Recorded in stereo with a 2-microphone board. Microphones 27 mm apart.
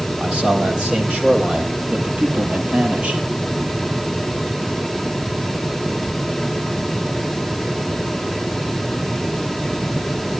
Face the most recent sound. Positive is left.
turn(degrees=-50)  # may be behind; listen again after turning